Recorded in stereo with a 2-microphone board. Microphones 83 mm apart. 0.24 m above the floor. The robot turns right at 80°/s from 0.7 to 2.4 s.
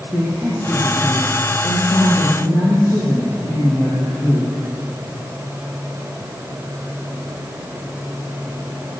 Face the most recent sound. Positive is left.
turn(degrees=145)